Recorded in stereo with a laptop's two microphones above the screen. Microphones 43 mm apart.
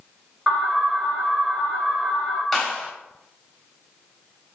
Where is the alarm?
10° right (ahead or behind), 4.5 m.